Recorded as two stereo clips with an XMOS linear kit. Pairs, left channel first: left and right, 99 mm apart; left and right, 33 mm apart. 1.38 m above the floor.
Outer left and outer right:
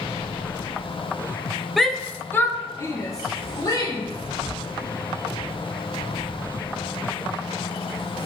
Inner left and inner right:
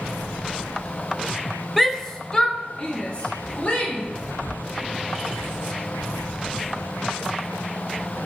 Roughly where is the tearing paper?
Left.